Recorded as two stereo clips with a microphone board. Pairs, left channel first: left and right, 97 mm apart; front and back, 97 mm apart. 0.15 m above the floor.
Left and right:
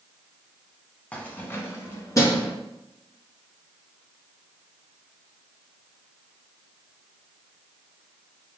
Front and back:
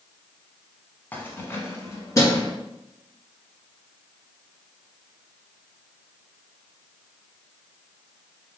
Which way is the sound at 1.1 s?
35° left.